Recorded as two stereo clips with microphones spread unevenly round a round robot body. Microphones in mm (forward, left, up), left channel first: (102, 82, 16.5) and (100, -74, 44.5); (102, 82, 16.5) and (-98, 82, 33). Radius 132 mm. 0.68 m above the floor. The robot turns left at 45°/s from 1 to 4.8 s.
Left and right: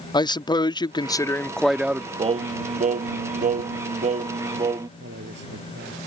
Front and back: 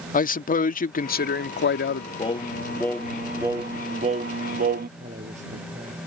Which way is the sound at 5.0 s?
115° right.